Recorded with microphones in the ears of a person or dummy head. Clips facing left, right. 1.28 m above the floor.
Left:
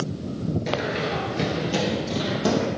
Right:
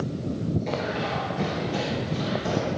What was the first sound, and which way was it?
Running footsteps, 15° left (ahead or behind).